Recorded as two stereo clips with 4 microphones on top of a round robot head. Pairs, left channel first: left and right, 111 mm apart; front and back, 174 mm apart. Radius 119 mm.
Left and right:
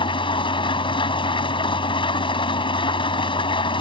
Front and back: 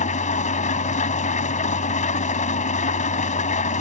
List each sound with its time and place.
0.0 s an engine running: 50° left